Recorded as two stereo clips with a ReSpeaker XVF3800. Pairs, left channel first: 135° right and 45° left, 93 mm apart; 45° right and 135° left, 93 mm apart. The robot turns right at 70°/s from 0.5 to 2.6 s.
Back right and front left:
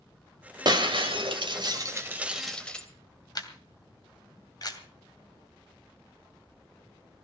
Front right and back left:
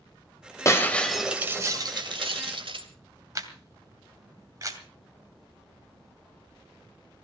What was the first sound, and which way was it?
Breaking glass, 10° left.